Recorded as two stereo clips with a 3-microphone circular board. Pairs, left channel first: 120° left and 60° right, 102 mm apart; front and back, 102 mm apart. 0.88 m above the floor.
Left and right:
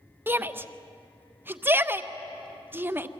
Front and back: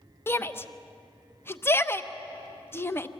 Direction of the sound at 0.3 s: 25° right.